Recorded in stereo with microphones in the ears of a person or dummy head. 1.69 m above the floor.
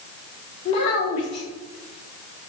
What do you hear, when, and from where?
0.7 s a child speaking: 30° left (ahead or behind), 0.9 m